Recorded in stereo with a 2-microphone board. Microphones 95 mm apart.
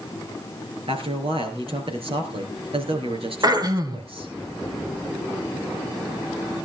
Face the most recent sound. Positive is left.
turn(degrees=-45)  # may be behind; listen again after turning